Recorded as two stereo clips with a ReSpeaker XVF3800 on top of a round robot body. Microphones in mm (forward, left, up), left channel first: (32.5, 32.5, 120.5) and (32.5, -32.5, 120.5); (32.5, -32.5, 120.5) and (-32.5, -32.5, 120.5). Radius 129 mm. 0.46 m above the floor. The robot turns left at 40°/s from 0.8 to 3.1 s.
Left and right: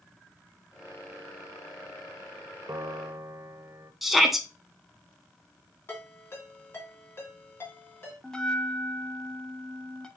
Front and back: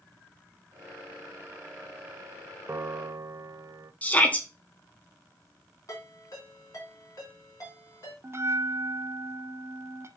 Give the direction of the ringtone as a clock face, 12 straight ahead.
11 o'clock.